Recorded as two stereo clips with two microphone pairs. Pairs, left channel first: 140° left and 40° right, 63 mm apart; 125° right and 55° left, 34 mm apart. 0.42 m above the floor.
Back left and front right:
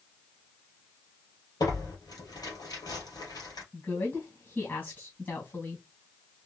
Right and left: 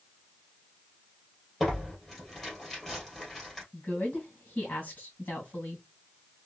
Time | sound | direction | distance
1.6 | tearing paper | 155° left | 2.5 m
3.7 | a woman speaking | 165° right | 2 m